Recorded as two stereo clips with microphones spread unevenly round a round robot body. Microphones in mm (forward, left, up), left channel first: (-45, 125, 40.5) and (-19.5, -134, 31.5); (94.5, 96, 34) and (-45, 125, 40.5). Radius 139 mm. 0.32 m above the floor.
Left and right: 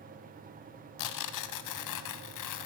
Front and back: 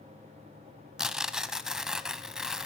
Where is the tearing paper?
80° left, 0.9 m.